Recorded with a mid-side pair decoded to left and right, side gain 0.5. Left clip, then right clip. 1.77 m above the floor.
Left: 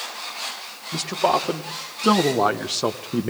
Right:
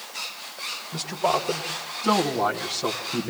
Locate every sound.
0.9 s a man speaking: 50° left, 3 m